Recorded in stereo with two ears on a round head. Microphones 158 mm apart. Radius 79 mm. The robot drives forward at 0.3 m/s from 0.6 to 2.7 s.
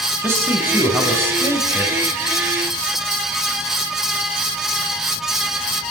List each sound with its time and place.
0.2 s a man speaking: 15° right (ahead or behind), 5 m